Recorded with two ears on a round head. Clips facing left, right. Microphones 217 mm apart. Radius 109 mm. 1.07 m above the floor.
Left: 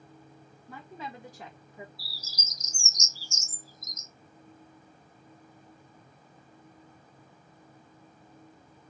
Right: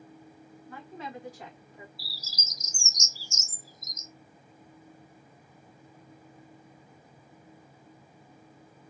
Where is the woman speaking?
70° left (ahead or behind), 1.5 m; by 1.9 s 65° left (ahead or behind), 1.2 m.